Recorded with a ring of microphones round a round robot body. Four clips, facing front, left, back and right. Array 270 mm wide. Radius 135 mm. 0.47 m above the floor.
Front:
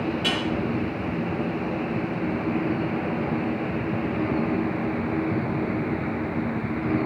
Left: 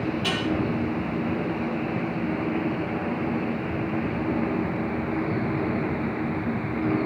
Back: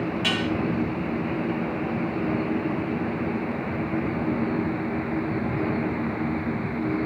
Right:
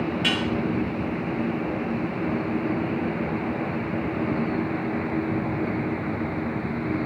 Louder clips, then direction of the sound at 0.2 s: Right 1 dB, even; 110° right.